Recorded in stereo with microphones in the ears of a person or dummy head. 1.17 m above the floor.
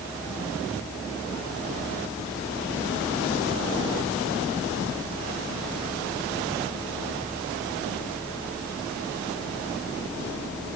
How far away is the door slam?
I don't hear a door slam.